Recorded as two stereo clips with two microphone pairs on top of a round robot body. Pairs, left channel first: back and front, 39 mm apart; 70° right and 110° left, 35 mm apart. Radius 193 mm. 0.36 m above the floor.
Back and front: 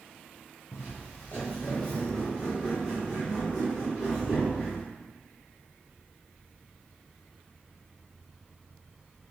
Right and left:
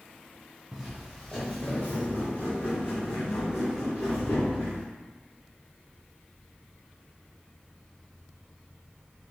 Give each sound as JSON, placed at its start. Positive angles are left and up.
{"t": 0.7, "sound": "footsteps", "azimuth_deg": -160, "distance_m": 0.9}